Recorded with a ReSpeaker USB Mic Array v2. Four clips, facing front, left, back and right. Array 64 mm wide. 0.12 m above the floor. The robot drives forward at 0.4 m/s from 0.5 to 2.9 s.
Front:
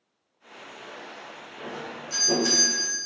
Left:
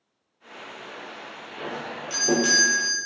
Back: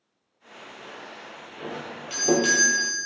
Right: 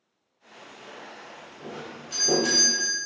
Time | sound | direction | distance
1.6 | a doorbell | 160° left | 4.5 m